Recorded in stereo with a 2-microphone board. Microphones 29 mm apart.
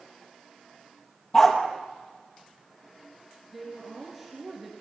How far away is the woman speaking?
About 3 m.